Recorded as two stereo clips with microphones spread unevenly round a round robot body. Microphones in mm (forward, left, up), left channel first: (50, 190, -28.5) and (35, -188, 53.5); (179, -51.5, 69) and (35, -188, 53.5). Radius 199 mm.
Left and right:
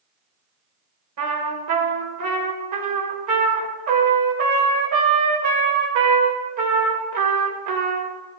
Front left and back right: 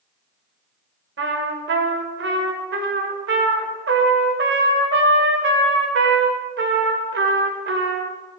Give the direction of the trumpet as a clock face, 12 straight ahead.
5 o'clock.